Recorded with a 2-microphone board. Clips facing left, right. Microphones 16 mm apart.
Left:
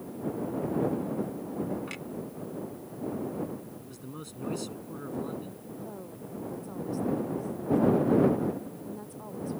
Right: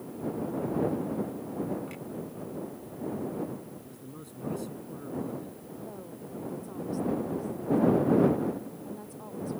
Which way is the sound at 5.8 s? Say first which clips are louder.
Even; centre (ahead or behind).